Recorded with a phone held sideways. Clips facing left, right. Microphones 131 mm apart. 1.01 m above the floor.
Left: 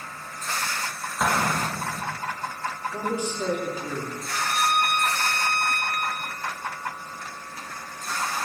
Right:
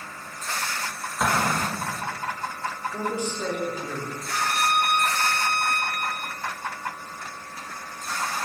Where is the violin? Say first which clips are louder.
Even; 40° right (ahead or behind), 4 m.